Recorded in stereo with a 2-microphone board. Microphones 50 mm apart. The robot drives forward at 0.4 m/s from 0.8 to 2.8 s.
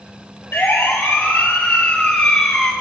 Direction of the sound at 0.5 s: 50° left (ahead or behind).